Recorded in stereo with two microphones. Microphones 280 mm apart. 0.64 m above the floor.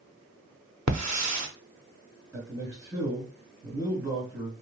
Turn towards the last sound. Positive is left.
turn(degrees=-10)  # may be behind; listen again after turning